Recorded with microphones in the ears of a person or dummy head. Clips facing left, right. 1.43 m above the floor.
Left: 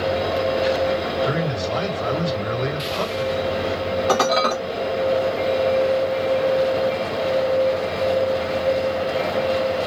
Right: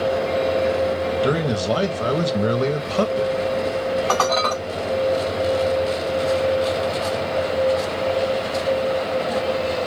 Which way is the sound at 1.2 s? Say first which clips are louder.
Right 3 dB; 50° right (ahead or behind).